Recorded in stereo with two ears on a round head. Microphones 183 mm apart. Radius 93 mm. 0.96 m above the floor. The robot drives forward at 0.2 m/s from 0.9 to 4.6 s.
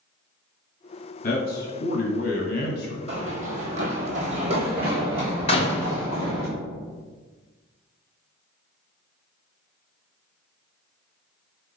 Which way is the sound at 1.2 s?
45° left (ahead or behind).